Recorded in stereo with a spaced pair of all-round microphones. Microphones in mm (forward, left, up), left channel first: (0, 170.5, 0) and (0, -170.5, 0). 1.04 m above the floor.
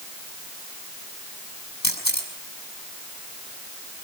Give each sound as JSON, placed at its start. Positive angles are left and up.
{"t": 1.8, "sound": "a camera shutter", "side_deg": 55, "distance_m": 6.0}